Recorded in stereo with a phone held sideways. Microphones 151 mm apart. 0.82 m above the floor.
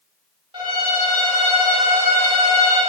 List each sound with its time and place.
0.5 s a violin: 35° right (ahead or behind), 2.5 m